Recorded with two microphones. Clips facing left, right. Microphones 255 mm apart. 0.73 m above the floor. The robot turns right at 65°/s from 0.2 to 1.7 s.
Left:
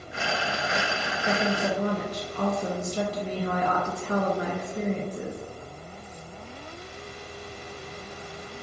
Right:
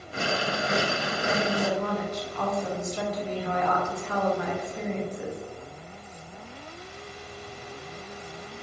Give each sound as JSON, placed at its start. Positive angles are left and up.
{"t": 1.2, "sound": "a woman speaking", "azimuth_deg": 60, "distance_m": 0.5}